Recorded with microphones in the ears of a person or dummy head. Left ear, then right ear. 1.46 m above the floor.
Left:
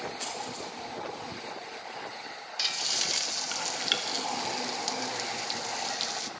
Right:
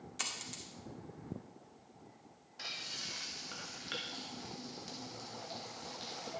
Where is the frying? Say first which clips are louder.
Left 12 dB; 55° left (ahead or behind), 0.5 m.